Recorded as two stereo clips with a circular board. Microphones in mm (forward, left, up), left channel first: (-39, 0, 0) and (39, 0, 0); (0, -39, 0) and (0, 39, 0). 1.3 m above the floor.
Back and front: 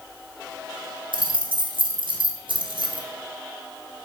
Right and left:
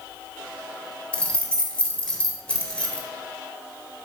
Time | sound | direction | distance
1.1 | keys jangling | 10° right | 1.2 m